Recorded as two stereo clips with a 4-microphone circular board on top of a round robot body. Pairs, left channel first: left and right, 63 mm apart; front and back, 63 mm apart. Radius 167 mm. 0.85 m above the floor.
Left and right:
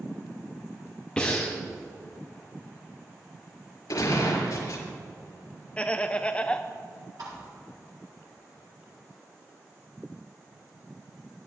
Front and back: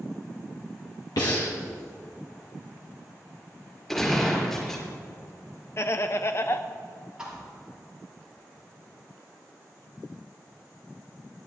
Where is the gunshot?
85° left, 5.5 m.